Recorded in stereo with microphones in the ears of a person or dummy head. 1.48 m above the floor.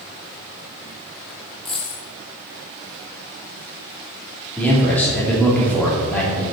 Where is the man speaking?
5° left (ahead or behind), 3 m.